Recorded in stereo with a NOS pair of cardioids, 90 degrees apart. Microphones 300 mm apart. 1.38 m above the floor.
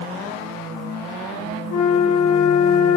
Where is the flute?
70° left, 3 m.